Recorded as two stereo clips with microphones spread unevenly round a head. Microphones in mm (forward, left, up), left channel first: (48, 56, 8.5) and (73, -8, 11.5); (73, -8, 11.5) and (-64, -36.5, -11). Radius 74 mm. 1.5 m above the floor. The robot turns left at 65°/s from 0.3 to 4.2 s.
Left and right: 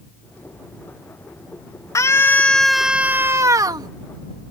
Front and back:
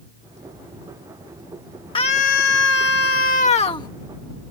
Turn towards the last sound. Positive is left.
turn(degrees=-75)